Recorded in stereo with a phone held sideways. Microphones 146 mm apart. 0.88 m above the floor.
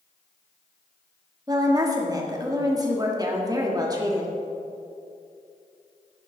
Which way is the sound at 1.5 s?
25° right (ahead or behind).